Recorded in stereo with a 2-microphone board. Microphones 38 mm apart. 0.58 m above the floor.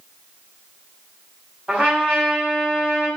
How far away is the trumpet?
About 1.8 m.